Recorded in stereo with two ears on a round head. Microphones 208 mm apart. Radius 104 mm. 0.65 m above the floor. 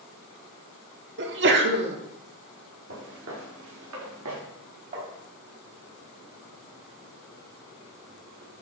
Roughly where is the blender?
I don't hear a blender.